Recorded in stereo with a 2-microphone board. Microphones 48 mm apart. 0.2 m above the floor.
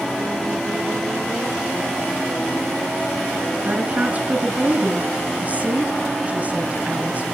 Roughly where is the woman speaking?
Right.